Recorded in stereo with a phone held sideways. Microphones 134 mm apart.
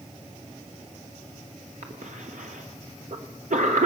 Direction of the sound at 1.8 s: 70° right (ahead or behind).